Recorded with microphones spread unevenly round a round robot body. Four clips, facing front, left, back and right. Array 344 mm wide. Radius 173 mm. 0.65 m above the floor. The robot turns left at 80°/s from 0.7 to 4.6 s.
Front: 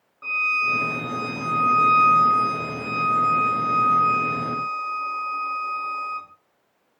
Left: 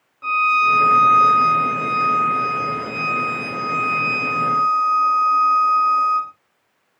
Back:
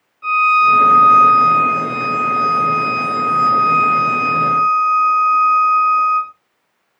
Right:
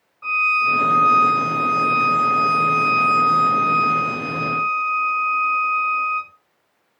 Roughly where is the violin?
Ahead left.